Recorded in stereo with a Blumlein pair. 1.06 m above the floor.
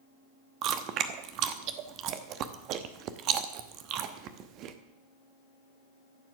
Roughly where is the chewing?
Ahead right.